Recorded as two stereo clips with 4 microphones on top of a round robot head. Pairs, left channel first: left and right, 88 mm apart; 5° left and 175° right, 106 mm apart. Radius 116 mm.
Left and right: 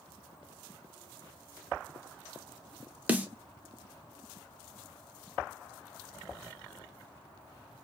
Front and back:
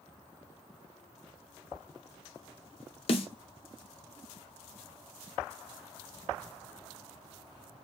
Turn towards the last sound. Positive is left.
turn(degrees=-20)